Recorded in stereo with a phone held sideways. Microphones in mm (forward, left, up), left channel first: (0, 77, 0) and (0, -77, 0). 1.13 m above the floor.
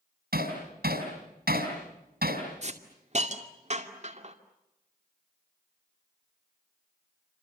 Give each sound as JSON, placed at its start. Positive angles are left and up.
{"t": 0.3, "sound": "hammering", "side_deg": -80, "distance_m": 5.5}
{"t": 2.6, "sound": "a hiss", "side_deg": -45, "distance_m": 2.5}